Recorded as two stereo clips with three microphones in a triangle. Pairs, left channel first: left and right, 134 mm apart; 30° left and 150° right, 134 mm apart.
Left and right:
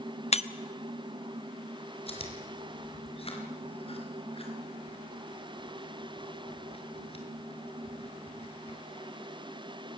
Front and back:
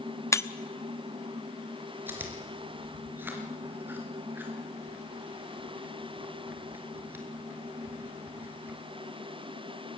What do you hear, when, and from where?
0.3 s breaking glass: 90° left, 0.9 m
2.1 s chewing: 135° left, 4 m